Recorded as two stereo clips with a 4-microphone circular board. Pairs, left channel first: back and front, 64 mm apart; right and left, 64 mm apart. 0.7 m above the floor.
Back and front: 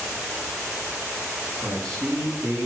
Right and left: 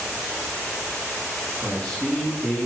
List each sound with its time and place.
1.6 s a man speaking: 10° right, 6.5 m